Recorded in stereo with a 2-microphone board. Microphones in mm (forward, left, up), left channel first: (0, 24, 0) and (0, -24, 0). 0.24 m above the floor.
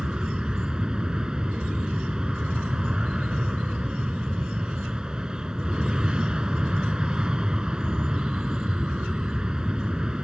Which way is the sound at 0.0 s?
15° right (ahead or behind).